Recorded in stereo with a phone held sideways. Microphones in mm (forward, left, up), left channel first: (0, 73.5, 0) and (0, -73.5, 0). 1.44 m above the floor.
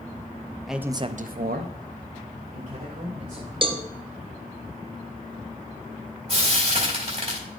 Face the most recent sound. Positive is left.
turn(degrees=-45)  # may be behind; listen again after turning